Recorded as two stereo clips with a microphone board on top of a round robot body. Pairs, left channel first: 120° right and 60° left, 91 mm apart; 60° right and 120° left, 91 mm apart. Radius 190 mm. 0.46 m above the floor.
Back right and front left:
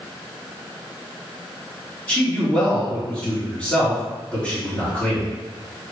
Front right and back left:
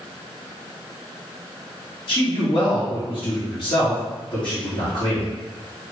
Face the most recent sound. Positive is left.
turn(degrees=-50)